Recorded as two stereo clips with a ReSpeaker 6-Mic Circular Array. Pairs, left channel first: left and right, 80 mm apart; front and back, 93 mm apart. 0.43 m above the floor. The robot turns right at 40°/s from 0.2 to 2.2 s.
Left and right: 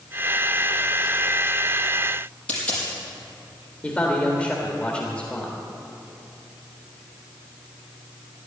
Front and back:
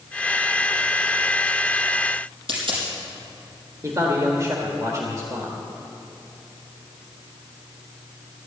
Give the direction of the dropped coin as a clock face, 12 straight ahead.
6 o'clock.